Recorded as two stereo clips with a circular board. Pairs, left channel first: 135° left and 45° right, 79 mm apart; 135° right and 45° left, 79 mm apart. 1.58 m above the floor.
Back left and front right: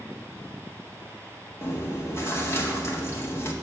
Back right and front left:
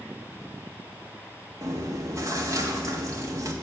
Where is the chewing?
85° left, 1.6 m.